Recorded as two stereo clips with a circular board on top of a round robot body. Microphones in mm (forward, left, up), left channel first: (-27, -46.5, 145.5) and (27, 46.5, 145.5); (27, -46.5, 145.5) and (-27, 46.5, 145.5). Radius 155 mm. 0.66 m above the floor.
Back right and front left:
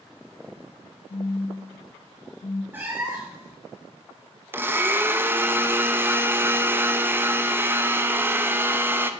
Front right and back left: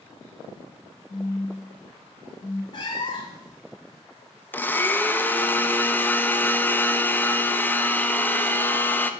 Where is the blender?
5° left, 0.8 m.